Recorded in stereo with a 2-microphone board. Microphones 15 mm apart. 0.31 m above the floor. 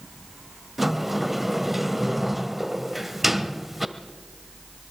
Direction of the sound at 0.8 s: 5° right (ahead or behind).